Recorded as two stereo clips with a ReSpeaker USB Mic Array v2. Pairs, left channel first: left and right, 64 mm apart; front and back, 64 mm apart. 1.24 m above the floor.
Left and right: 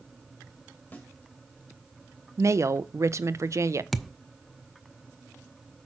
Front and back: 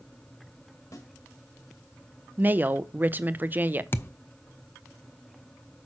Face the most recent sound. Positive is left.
turn(degrees=5)